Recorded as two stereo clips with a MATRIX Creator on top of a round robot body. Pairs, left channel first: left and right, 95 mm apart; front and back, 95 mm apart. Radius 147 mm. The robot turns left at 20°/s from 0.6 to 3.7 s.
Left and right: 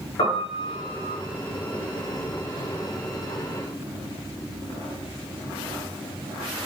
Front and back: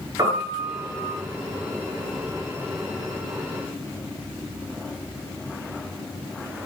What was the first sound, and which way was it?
A piano, 125° left.